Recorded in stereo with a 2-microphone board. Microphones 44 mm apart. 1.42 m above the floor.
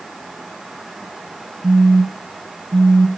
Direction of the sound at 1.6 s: 65° right (ahead or behind).